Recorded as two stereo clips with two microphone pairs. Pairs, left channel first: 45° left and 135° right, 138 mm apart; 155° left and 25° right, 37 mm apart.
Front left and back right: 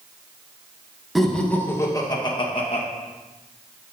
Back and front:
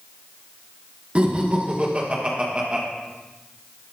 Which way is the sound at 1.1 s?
45° right.